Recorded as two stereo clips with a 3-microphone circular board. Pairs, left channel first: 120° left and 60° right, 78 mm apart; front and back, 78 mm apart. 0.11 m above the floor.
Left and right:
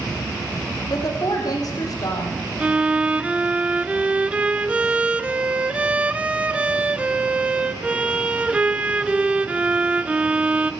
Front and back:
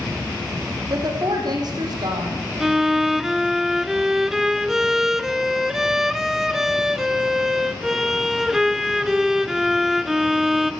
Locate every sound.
0.9 s a woman speaking: 155° left, 5.5 m
2.6 s a violin: 105° right, 0.7 m